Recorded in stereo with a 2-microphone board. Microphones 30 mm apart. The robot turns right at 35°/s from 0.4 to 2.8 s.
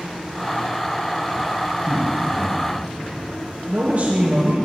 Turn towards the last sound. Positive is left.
turn(degrees=-60)  # may be behind; listen again after turning